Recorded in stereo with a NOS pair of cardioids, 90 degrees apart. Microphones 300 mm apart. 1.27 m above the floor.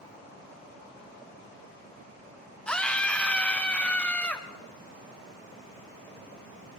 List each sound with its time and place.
2.7 s a scream: 5° left, 1.8 m